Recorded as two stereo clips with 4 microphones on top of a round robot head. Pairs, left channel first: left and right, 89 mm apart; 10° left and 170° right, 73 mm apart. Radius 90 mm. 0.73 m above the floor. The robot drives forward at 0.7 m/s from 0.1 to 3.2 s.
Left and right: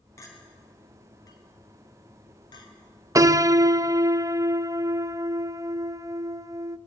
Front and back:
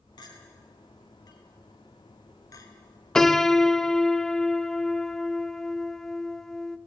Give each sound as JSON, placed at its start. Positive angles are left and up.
{"t": 0.2, "sound": "a clink", "azimuth_deg": 35, "distance_m": 4.5}
{"t": 3.1, "sound": "a piano", "azimuth_deg": -65, "distance_m": 0.7}